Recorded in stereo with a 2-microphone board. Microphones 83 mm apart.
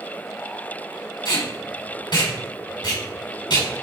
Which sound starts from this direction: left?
Tape being pulled, at 1.2 s.